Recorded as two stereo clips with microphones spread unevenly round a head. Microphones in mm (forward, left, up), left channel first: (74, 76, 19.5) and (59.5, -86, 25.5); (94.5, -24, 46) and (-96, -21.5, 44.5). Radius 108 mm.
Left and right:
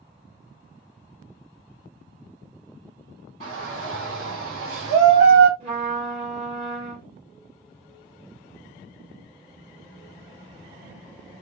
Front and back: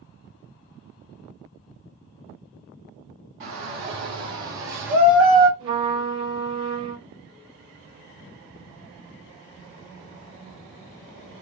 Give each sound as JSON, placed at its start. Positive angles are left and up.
{"t": 3.4, "sound": "a shout", "azimuth_deg": -160, "distance_m": 3.5}
{"t": 5.6, "sound": "a trumpet", "azimuth_deg": -155, "distance_m": 3.0}